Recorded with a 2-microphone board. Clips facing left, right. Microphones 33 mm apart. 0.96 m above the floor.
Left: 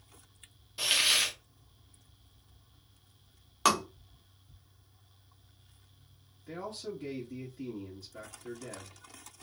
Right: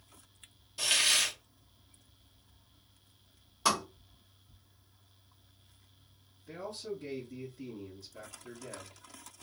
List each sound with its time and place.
0.8 s a hiss: 15° left (ahead or behind), 0.6 m
3.6 s tapping: 80° left, 1.1 m
6.5 s a man speaking: 60° left (ahead or behind), 1.6 m